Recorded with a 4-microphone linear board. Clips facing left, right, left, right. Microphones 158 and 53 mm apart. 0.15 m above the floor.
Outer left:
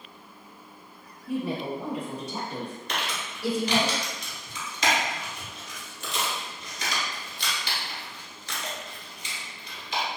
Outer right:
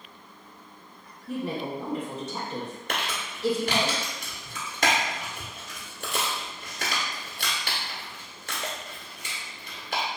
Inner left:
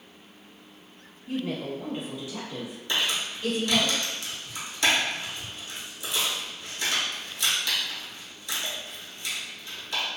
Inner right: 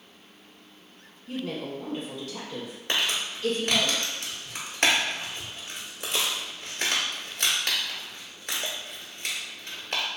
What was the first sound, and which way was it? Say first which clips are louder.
A woman speaking: outer left 1 dB, inner left 2 dB; 10° left (ahead or behind).